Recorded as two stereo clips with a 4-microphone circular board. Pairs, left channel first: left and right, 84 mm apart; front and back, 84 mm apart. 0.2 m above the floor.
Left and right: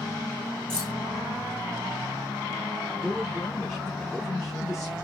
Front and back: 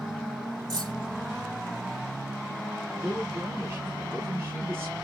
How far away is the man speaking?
About 1.6 m.